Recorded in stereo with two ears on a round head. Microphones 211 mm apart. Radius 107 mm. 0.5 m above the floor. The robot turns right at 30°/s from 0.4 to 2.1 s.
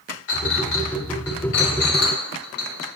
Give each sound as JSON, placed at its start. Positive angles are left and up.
{"t": 0.3, "sound": "a clink", "side_deg": 50, "distance_m": 1.8}